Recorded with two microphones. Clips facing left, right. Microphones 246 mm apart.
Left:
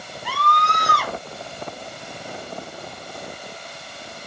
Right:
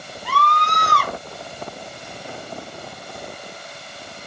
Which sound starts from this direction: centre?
A scream, at 0.2 s.